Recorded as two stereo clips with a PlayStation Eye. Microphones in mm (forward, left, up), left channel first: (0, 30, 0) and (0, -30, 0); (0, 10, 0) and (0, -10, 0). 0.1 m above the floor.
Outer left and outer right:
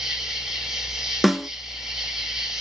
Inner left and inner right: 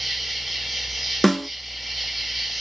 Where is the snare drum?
Centre (ahead or behind), 0.6 m.